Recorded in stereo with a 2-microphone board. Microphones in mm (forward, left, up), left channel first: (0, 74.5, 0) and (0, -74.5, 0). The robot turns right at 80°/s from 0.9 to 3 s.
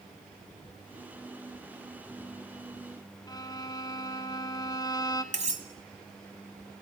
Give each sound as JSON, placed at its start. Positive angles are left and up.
{"t": 3.3, "sound": "a violin", "side_deg": 25, "distance_m": 1.2}
{"t": 5.3, "sound": "cutlery clinking", "side_deg": -50, "distance_m": 1.8}